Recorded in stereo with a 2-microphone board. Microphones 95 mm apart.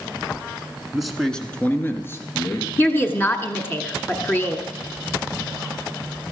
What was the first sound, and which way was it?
A man speaking, 5° right (ahead or behind).